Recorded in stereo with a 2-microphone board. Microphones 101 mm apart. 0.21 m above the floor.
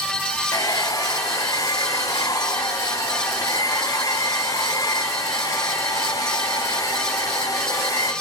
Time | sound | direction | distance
0.5 | a hair dryer | 35° left (ahead or behind) | 0.6 m